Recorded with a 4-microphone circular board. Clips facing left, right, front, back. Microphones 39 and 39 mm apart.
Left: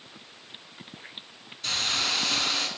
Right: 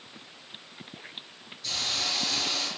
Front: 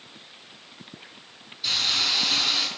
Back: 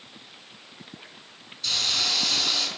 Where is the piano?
No piano in this recording.